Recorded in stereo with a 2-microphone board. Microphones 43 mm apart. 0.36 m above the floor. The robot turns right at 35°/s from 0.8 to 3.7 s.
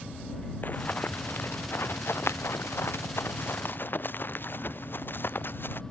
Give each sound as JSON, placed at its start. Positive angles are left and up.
{"t": 0.6, "sound": "running footsteps", "side_deg": 45}